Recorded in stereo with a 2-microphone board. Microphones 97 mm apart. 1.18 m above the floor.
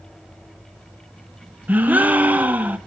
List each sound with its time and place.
1.7 s a gasp: 15° right (ahead or behind), 0.7 m